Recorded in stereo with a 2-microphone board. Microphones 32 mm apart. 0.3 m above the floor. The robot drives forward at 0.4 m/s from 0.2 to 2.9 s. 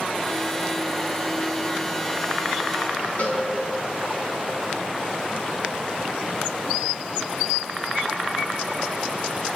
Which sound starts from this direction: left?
A cowbell, at 3.2 s.